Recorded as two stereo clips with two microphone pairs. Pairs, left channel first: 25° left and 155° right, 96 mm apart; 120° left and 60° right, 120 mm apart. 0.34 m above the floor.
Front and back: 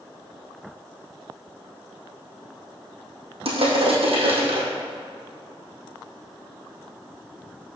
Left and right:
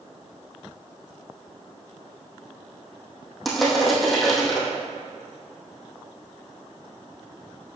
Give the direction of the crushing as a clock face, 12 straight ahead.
5 o'clock.